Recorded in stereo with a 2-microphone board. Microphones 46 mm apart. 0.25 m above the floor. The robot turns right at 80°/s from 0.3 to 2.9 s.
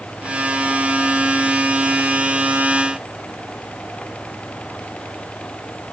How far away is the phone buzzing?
I don't hear a phone buzzing.